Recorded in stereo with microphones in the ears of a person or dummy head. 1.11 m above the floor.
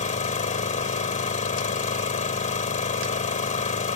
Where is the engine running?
40° left (ahead or behind).